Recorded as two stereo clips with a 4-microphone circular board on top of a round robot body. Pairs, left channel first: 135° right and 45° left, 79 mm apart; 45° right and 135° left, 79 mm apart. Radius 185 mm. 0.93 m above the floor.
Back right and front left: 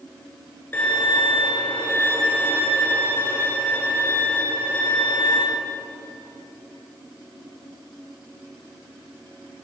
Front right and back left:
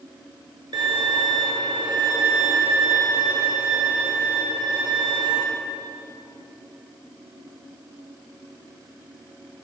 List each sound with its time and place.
0.7 s a violin: 160° left, 3 m